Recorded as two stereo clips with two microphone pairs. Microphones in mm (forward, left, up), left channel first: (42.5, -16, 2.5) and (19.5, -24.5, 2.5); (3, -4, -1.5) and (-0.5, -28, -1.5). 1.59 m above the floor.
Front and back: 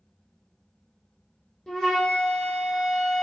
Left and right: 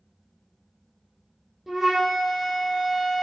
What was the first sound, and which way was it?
A flute, 25° right.